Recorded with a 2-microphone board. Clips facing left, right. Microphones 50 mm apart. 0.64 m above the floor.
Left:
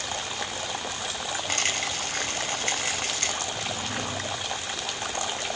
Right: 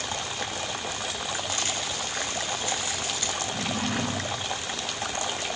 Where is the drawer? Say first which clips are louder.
Right 2 dB; 80° right, 3 m.